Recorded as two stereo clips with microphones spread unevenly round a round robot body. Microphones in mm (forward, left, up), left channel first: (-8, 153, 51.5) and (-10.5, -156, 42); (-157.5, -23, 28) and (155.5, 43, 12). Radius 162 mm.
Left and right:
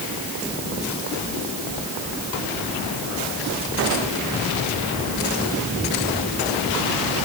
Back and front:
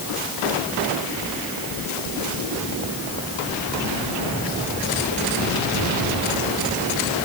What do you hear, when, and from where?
Only background noise.